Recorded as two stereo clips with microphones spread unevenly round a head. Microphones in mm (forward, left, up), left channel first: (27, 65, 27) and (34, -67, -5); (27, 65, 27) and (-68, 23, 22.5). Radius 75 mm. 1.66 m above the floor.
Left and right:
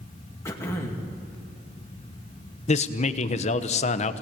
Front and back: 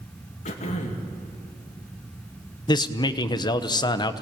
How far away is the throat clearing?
About 2.5 m.